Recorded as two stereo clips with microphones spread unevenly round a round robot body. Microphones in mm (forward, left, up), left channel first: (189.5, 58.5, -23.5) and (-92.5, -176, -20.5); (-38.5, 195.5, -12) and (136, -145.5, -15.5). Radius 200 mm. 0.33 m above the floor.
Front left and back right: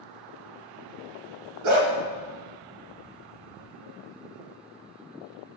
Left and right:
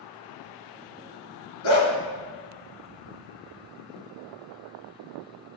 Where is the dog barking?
170° left, 1.8 m.